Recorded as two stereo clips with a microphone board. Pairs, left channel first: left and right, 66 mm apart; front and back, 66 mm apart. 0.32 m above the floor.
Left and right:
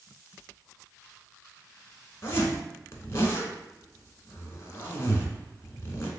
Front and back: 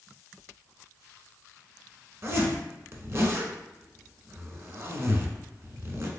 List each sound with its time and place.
2.2 s a zipper: 135° left, 0.7 m